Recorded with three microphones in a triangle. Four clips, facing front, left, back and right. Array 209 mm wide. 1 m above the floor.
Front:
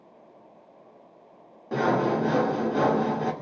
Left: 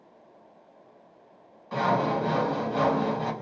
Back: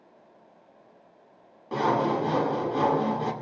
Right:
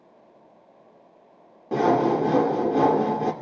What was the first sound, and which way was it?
Sawing, 80° right.